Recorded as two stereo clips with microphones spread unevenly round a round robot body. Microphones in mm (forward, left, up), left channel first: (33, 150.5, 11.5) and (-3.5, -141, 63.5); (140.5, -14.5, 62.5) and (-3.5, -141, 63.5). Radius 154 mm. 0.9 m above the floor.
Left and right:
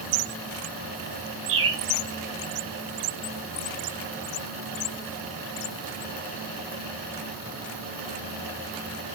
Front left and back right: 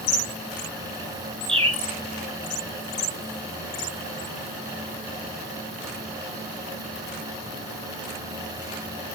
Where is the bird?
75° right, 5.5 m.